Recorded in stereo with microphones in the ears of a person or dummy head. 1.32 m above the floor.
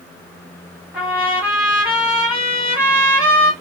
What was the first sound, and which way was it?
A trumpet, 5° right (ahead or behind).